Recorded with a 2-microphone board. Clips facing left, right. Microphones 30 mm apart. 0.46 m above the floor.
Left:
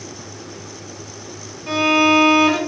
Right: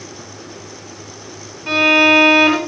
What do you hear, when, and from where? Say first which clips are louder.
1.7 s a violin: right 4 dB; 45° right (ahead or behind), 5 m